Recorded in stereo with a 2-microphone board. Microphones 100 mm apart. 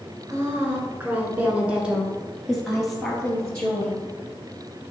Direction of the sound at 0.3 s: 30° right (ahead or behind).